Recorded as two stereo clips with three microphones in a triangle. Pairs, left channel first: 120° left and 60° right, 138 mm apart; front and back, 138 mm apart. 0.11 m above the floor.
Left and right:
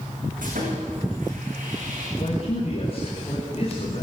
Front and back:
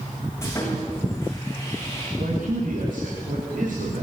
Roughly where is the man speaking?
Behind.